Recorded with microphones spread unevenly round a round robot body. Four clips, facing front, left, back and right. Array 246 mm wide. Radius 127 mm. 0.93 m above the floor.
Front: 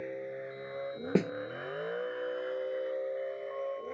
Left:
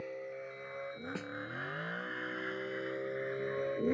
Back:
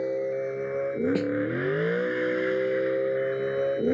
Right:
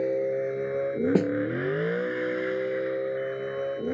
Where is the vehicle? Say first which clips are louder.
Right 17 dB, back 12 dB; 115° right; by 4.0 s 175° left.